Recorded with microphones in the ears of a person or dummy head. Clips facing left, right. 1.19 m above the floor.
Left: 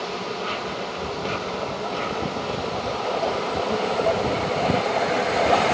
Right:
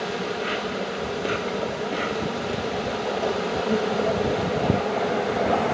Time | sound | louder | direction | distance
0.0 | an insect | right 2 dB | 25° right (ahead or behind) | 0.9 m